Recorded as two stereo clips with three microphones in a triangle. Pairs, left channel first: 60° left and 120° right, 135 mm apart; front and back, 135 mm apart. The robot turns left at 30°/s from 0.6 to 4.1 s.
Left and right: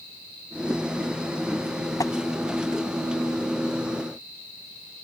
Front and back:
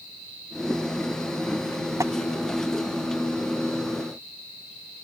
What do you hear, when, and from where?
2.0 s tapping: 120° left; by 2.1 s 115° left